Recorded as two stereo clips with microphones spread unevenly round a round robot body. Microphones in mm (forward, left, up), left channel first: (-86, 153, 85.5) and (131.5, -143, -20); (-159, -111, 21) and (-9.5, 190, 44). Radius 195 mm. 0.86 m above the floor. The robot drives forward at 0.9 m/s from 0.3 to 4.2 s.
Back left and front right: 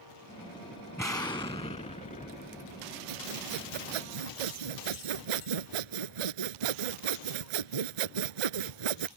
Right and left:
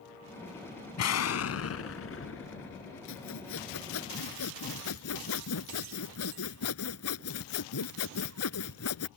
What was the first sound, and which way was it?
An explosion, 155° right.